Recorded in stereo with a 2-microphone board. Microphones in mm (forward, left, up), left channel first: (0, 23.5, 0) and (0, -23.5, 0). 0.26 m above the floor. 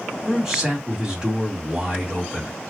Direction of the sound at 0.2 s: 10° right (ahead or behind).